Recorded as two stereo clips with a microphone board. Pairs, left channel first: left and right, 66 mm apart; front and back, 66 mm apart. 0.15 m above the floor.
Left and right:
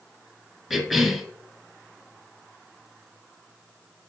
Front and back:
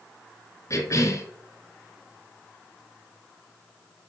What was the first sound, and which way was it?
A cough, 5° right.